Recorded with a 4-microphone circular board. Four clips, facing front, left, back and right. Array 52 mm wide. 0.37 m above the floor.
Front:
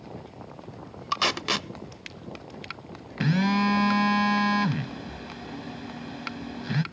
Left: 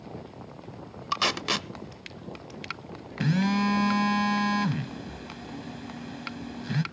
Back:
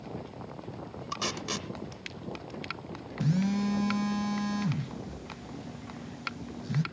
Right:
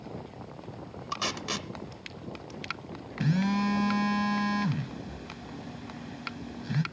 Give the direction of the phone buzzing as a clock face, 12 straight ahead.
11 o'clock.